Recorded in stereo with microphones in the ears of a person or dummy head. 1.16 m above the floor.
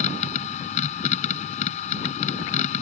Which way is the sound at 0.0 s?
40° left (ahead or behind).